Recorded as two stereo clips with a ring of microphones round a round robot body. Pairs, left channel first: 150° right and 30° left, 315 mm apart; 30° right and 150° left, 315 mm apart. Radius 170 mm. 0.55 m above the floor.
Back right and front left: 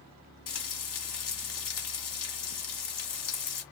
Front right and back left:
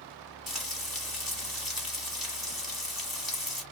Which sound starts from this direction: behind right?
Frying, at 0.5 s.